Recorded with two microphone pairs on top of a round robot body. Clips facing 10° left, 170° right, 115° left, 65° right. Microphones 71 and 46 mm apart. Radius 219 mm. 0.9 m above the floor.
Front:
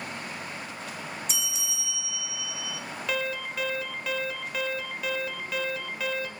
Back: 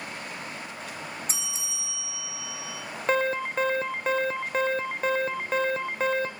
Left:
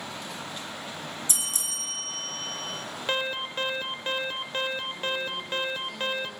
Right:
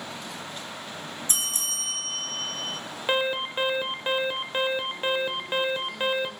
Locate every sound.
1.3 s a bell: 115° right, 2.5 m
3.1 s an alarm: 135° right, 1.4 m